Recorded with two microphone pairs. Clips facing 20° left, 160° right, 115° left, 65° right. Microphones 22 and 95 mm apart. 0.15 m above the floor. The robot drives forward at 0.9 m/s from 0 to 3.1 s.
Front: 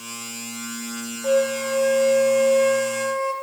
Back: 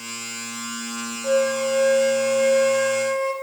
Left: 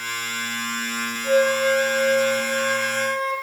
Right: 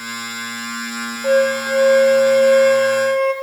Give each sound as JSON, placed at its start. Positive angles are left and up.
{"t": 1.2, "sound": "a flute", "azimuth_deg": -55, "distance_m": 4.5}